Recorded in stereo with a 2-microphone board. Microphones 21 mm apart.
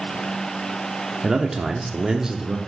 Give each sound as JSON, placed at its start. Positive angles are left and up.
{"t": 1.2, "sound": "a man speaking", "side_deg": -20, "distance_m": 0.7}